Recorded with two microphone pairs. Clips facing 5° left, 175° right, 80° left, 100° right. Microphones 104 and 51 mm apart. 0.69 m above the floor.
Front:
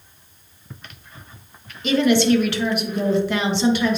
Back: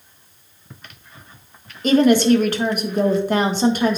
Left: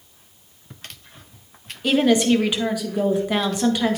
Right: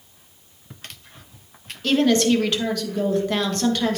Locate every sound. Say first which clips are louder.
1.8 s a woman speaking: back 3 dB, left 1 dB; 150° left, 1.2 m